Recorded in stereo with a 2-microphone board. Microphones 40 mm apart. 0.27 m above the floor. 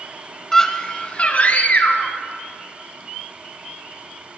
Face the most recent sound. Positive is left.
turn(degrees=50)  # may be behind; listen again after turning